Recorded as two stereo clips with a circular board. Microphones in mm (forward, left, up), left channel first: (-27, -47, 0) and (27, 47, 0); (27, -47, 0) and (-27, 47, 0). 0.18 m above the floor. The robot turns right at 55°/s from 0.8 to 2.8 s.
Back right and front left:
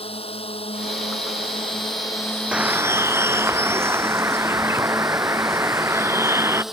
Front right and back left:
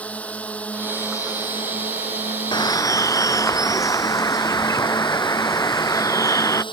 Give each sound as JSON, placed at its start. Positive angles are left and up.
{"t": 0.0, "sound": "a drone", "azimuth_deg": -135}
{"t": 2.5, "sound": "a bird", "azimuth_deg": -20}